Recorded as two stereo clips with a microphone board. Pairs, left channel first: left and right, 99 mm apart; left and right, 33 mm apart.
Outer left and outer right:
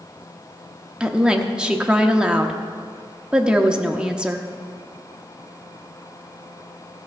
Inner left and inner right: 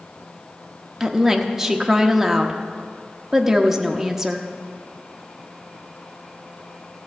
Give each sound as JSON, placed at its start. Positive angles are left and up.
{"t": 1.0, "sound": "a woman speaking", "side_deg": -10, "distance_m": 0.9}